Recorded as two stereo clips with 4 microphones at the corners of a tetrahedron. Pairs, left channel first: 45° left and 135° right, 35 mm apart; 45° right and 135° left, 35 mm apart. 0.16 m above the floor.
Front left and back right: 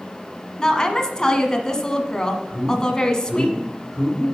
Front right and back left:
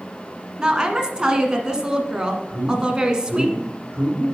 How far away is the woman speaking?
About 1.3 m.